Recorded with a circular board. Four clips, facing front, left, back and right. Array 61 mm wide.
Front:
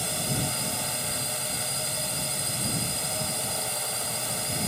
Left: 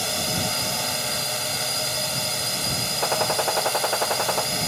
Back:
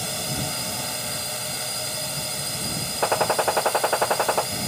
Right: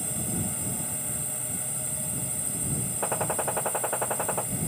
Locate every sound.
0.0 s a drone: 100° left
3.0 s a gunshot: 160° left